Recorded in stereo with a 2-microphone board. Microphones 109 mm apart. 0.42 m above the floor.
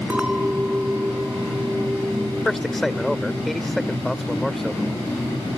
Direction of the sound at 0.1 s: 10° right (ahead or behind).